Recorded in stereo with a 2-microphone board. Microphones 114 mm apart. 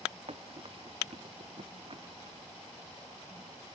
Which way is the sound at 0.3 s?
55° right (ahead or behind).